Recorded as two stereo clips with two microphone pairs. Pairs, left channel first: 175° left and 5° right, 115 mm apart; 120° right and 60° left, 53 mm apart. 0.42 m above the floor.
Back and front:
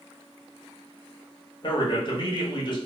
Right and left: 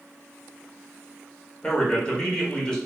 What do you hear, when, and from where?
1.6 s a man speaking: 175° left, 1.0 m